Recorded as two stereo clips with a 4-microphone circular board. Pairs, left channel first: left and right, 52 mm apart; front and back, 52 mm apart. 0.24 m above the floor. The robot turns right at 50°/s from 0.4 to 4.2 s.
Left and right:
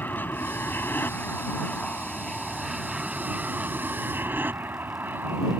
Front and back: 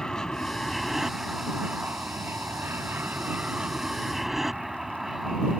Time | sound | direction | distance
0.0 | an aircraft | 70° left | ?